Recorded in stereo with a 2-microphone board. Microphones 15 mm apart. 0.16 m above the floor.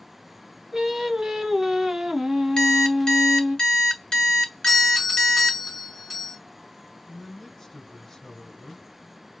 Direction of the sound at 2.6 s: 50° left (ahead or behind).